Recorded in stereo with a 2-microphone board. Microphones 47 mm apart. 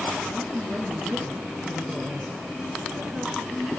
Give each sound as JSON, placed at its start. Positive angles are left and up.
{"t": 0.3, "sound": "a woman speaking", "side_deg": 0, "distance_m": 3.5}